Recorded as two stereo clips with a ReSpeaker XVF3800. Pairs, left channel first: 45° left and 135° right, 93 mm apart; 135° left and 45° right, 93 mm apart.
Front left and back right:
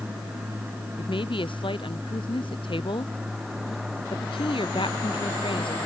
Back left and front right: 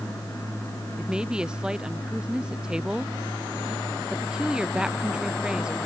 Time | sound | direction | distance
1.0 | a woman speaking | 35° left | ?